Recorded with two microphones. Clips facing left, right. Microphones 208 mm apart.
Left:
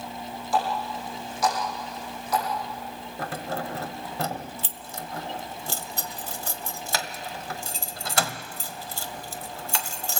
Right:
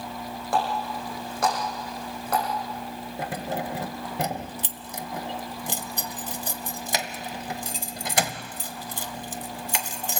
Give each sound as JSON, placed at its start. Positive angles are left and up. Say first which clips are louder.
{"t": 0.5, "sound": "a running tap", "louder": "even", "side_deg": -60, "distance_m": 10.0}
{"t": 3.2, "sound": "keys jangling", "louder": "right 1 dB", "side_deg": -20, "distance_m": 1.1}